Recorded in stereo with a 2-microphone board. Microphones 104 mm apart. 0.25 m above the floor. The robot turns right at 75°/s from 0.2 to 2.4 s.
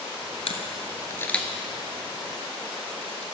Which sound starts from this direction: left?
A camera shutter, at 0.5 s.